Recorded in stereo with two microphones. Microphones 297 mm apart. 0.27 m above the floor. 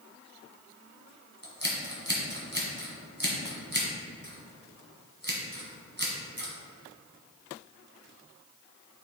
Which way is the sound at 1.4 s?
35° right (ahead or behind).